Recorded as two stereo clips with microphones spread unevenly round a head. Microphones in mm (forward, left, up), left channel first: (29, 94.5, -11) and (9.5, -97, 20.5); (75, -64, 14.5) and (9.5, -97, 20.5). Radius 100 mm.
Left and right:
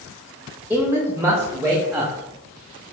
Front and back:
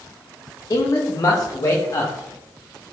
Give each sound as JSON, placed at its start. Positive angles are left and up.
{"t": 0.7, "sound": "a man speaking", "azimuth_deg": -15, "distance_m": 0.9}